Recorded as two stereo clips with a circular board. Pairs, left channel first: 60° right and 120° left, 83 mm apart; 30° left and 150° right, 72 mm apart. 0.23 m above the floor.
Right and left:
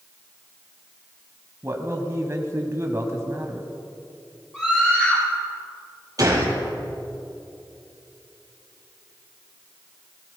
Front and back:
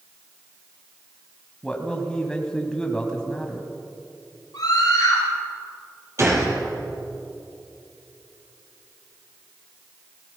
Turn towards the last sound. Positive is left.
turn(degrees=165)